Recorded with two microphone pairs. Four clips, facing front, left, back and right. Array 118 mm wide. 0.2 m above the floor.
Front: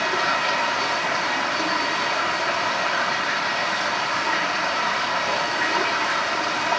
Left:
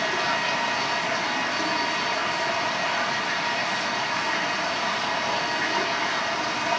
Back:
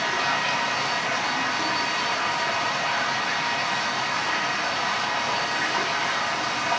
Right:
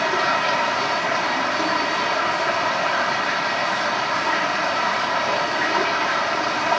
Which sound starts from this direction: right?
Running water, at 0.0 s.